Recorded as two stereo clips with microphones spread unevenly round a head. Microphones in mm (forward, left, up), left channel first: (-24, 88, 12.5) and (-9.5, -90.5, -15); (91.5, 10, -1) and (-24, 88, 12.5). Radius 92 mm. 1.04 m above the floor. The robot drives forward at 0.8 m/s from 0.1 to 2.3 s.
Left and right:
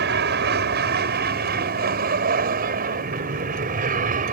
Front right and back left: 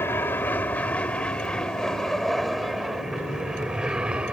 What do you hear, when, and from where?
0.0 s an aircraft: 115° right; by 4.3 s 130° right